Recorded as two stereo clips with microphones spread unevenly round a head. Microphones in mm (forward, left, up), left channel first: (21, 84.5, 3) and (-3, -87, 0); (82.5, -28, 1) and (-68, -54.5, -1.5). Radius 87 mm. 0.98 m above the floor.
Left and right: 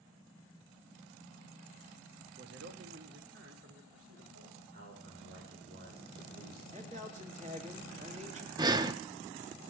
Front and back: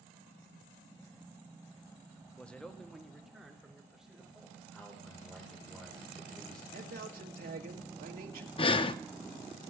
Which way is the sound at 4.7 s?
75° right.